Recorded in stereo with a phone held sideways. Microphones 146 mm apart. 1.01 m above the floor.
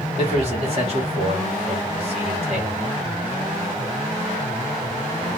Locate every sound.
0.2 s a man speaking: 45° right (ahead or behind), 1.1 m